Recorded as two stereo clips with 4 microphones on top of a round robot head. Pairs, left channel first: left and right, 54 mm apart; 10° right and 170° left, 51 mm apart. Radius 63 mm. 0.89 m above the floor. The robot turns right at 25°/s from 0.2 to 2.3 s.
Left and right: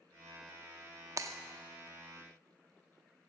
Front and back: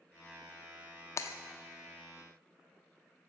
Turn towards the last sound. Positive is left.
turn(degrees=-20)